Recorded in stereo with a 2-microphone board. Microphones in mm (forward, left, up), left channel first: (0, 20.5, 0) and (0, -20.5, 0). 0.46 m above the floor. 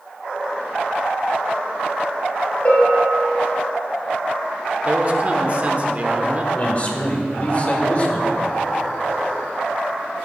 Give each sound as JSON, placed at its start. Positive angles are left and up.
{"t": 2.6, "sound": "a bell", "side_deg": 30, "distance_m": 3.5}
{"t": 4.8, "sound": "a man speaking", "side_deg": -35, "distance_m": 1.1}
{"t": 6.5, "sound": "a man speaking", "side_deg": 35, "distance_m": 1.9}